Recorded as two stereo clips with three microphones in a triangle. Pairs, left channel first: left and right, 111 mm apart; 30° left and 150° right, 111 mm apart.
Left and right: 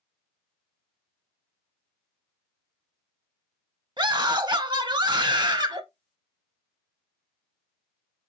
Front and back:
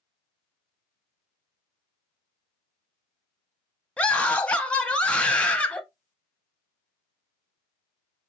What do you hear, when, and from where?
4.0 s a scream: 50° right, 0.8 m